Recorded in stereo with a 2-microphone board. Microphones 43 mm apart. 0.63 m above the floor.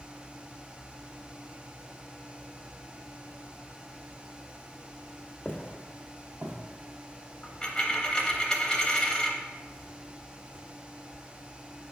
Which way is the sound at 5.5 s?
20° left (ahead or behind).